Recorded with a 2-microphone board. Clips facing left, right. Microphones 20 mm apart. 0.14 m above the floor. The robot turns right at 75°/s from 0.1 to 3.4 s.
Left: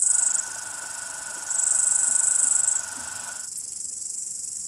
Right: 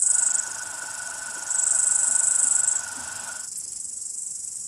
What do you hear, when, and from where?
0.0 s an insect: 155° right, 0.9 m; by 4.7 s 95° left, 0.9 m